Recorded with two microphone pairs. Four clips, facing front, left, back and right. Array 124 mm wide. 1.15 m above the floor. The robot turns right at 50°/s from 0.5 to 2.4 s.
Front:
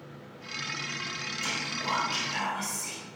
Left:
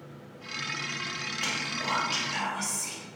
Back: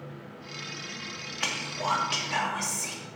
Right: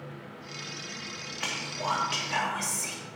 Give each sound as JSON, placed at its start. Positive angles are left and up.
{"t": 1.4, "sound": "whispering", "azimuth_deg": 180, "distance_m": 2.5}